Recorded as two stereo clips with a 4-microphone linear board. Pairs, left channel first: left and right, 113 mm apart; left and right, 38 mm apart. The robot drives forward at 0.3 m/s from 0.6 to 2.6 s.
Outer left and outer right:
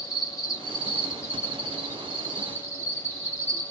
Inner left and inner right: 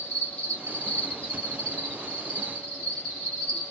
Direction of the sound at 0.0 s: 35° left (ahead or behind).